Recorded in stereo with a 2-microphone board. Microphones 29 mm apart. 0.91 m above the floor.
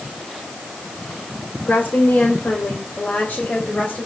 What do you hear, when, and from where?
1.7 s a woman speaking: 70° left (ahead or behind), 3 m; by 4.1 s 50° left (ahead or behind), 4 m